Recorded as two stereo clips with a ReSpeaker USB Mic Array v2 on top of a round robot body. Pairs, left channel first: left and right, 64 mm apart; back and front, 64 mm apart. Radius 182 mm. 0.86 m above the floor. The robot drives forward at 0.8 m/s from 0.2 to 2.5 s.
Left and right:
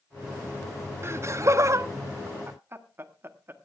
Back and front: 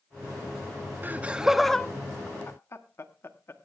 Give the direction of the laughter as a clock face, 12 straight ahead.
2 o'clock.